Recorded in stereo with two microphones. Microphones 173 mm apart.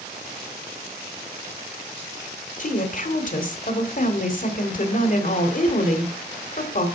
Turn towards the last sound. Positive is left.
turn(degrees=50)  # may be behind; listen again after turning